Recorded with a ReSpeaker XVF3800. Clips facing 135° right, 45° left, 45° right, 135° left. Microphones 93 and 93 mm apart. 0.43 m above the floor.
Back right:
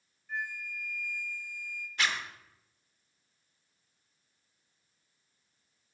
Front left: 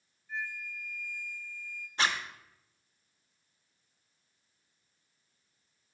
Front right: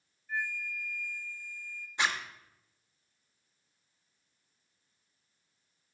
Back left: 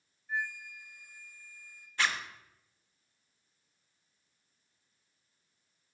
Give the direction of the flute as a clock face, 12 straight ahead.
5 o'clock.